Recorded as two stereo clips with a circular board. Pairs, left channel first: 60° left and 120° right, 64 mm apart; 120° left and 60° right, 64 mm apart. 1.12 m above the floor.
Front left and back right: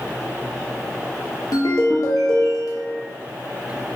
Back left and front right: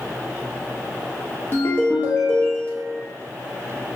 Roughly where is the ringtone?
Ahead left.